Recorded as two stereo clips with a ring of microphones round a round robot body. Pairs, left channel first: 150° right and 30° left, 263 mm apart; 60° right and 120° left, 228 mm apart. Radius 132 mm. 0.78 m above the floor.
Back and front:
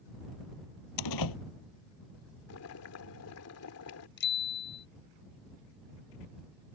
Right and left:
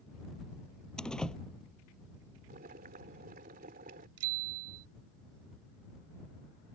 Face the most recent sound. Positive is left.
turn(degrees=160)